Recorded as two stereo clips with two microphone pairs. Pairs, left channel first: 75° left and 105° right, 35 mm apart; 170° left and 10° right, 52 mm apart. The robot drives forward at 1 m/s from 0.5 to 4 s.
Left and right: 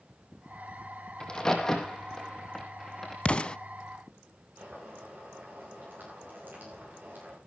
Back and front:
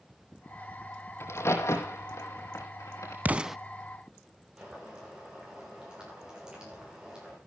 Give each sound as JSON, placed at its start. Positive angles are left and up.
{"t": 1.2, "sound": "a crack", "azimuth_deg": 140, "distance_m": 2.0}
{"t": 3.2, "sound": "an explosion", "azimuth_deg": 35, "distance_m": 0.6}
{"t": 4.6, "sound": "boiling", "azimuth_deg": -85, "distance_m": 8.0}